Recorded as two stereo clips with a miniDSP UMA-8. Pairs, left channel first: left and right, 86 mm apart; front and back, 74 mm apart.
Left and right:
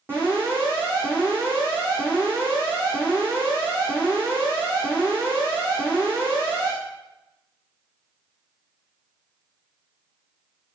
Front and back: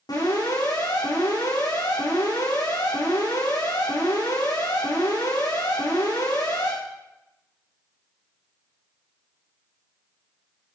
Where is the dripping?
I don't hear dripping.